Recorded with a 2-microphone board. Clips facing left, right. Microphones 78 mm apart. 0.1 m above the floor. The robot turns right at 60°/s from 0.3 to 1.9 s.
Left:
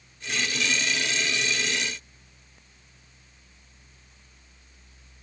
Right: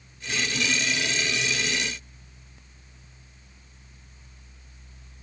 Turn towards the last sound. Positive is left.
No sound to turn to.